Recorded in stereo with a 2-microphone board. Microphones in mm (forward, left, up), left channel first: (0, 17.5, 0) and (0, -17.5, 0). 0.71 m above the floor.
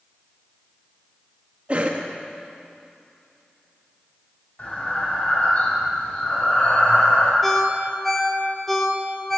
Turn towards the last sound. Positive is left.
turn(degrees=5)  # may be behind; listen again after turning